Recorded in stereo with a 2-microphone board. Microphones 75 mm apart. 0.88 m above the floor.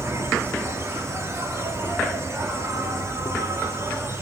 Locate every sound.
0.0 s an insect: 40° right (ahead or behind), 1.7 m